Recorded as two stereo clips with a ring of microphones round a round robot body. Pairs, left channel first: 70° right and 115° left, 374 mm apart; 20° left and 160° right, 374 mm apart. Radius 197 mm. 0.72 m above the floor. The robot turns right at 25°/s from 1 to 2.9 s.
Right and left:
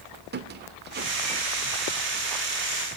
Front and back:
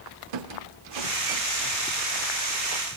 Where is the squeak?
Straight behind, 1.3 m; by 1.4 s 170° right, 1.3 m.